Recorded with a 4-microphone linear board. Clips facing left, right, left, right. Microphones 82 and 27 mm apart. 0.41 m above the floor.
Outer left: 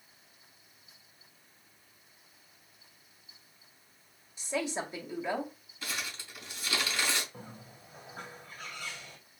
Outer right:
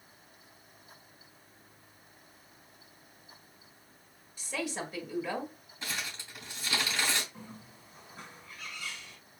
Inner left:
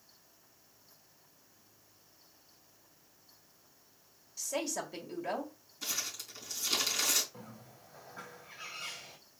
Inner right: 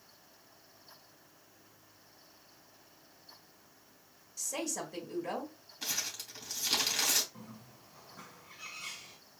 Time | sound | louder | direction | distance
4.4 | a woman speaking | outer left 3 dB, inner left 2 dB | 20° left (ahead or behind) | 1.5 m
5.8 | crumpling | even, inner right 1 dB | 25° right (ahead or behind) | 2.5 m
7.3 | a bird | even, even | 45° left (ahead or behind) | 1.6 m